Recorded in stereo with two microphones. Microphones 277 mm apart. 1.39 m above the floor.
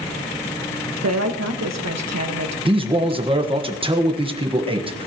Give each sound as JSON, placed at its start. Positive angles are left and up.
{"t": 1.0, "sound": "a woman speaking", "side_deg": -70, "distance_m": 1.6}
{"t": 2.6, "sound": "a man speaking", "side_deg": -20, "distance_m": 1.4}